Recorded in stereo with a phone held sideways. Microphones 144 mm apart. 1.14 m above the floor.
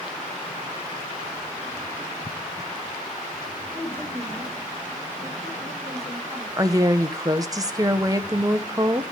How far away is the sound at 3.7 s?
About 4 m.